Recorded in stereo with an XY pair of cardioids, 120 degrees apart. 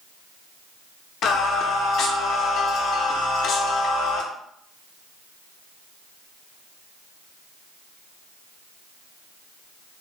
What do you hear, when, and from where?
1.2 s singing: 60° left, 0.5 m